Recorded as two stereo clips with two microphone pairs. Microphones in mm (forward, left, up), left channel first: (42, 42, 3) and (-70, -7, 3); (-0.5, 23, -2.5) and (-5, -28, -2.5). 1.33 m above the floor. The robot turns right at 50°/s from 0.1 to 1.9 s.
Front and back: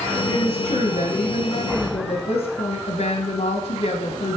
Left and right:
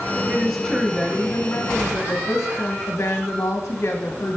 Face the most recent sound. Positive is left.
turn(degrees=45)